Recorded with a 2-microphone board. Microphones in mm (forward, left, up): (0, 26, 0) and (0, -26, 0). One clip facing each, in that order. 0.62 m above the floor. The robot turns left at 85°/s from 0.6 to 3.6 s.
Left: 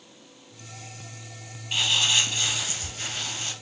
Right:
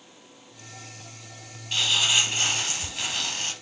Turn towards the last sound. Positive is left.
turn(degrees=-150)